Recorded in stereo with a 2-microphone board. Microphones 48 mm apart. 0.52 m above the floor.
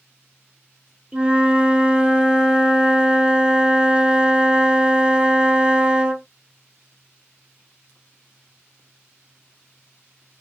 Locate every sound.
1.1 s a flute: 20° right (ahead or behind), 0.7 m